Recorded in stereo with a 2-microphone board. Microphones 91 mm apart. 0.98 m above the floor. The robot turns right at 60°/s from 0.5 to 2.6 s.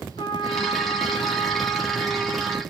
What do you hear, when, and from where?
0.2 s a trumpet: 65° left, 0.9 m; by 2.6 s 170° right, 0.9 m